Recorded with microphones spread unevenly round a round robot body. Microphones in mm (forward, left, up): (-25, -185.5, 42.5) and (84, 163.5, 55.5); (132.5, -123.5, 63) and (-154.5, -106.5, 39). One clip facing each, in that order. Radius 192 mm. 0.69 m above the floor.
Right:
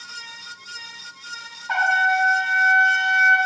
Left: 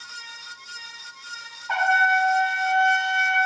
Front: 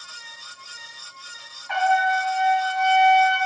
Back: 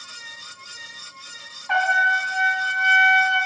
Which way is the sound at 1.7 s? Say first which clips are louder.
Even, front 4 dB; 175° right.